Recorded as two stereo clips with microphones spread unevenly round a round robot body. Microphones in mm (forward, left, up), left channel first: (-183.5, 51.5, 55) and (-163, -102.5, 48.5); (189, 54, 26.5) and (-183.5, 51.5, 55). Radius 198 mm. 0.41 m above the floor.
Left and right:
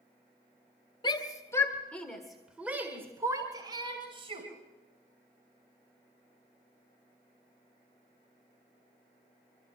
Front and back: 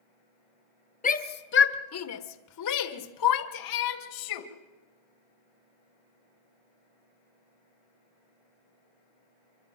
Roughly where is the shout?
Ahead left.